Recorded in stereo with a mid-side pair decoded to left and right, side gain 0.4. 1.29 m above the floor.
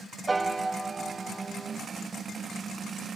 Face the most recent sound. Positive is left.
turn(degrees=-30)